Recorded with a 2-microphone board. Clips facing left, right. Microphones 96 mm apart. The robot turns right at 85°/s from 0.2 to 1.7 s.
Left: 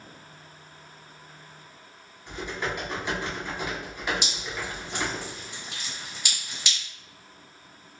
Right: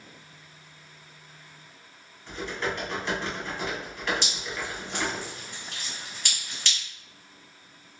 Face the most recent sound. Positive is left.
turn(degrees=10)  # may be behind; listen again after turning